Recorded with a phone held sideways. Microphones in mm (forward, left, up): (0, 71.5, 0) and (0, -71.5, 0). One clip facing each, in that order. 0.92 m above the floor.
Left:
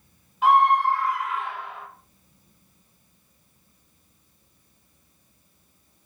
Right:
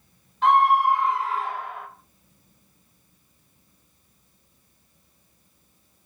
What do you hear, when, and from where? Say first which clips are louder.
0.4 s a scream: even; 5° left (ahead or behind), 0.7 m; by 1.9 s 50° right (ahead or behind), 0.9 m